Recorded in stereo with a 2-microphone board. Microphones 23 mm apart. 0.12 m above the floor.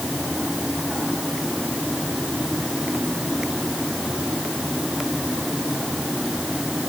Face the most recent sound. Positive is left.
No sound to turn to.